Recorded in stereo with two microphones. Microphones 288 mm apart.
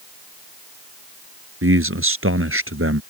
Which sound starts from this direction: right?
A man speaking, at 1.6 s.